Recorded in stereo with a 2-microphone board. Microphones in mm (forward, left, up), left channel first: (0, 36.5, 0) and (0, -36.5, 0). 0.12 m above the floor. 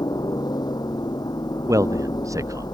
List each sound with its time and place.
0.0 s a helicopter: 65° left (ahead or behind)
1.7 s a man speaking: 50° right (ahead or behind)